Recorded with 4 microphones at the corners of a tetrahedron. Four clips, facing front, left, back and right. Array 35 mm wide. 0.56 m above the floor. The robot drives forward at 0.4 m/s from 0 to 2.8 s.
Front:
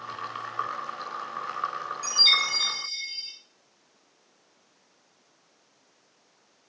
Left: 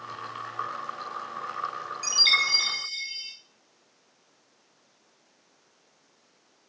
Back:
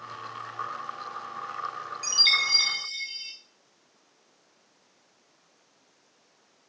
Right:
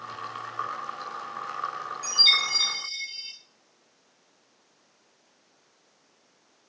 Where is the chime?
125° left, 1.1 m; by 3.3 s 140° left, 1.3 m.